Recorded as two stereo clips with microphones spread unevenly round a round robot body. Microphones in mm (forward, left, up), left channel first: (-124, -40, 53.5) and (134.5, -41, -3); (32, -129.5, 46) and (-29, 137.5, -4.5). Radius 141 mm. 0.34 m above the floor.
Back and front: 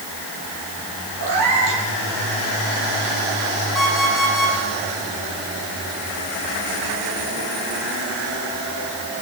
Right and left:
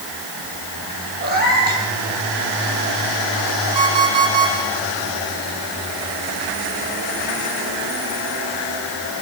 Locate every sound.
1.2 s a cat meowing: 45° left, 5.5 m
3.8 s an alarm clock: 90° left, 7.5 m